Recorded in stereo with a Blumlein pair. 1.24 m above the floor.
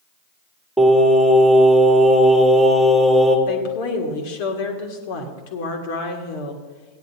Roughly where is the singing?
Ahead.